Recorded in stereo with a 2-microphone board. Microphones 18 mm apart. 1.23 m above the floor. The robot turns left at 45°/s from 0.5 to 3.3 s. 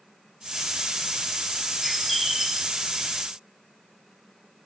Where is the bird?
25° left, 0.7 m; by 2.7 s 15° right, 0.7 m.